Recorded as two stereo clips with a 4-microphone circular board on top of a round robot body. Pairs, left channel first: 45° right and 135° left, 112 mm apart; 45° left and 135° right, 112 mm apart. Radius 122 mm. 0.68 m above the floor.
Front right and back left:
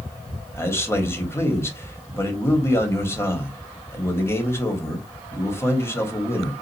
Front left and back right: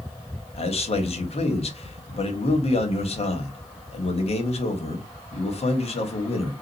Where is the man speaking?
25° left, 1.3 m.